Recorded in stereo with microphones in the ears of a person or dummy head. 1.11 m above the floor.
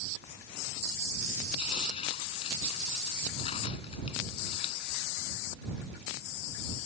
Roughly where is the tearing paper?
Left.